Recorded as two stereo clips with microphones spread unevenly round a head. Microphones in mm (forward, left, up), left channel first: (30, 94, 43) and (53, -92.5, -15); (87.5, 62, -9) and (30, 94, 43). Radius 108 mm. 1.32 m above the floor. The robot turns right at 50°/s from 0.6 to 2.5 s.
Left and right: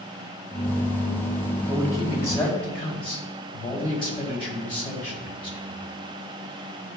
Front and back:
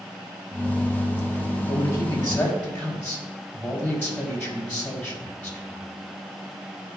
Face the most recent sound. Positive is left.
turn(degrees=30)